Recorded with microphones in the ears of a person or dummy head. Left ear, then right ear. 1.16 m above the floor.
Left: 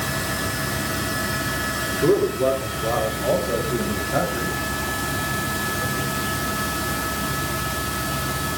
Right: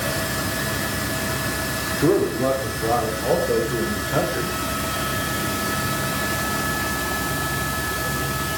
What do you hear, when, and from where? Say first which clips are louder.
2.0 s a man speaking: left 1 dB; 25° right (ahead or behind), 3.5 m; by 4.6 s 30° right (ahead or behind), 5.5 m